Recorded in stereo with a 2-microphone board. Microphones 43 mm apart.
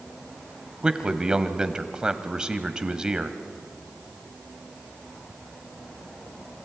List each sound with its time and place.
0.8 s a man speaking: 15° right (ahead or behind), 1.3 m